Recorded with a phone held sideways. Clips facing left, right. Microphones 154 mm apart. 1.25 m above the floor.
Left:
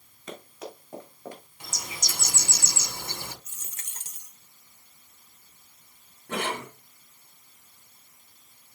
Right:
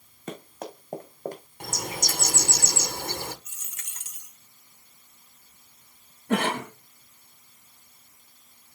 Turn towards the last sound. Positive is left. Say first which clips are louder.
# right 6 dB
turn(degrees=-65)  # may be behind; listen again after turning